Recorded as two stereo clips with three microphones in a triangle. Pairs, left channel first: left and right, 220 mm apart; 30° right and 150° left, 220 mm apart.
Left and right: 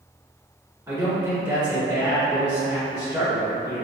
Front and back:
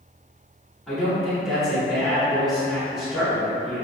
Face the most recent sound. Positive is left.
turn(degrees=-120)